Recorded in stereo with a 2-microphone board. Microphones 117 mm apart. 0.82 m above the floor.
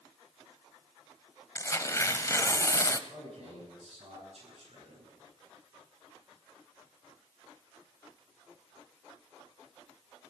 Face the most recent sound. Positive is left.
turn(degrees=-60)  # may be behind; listen again after turning